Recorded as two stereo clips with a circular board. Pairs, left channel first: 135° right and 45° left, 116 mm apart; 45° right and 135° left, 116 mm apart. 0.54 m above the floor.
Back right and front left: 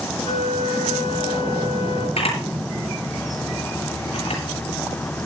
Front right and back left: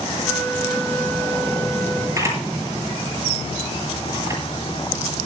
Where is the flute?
120° right, 5.5 m.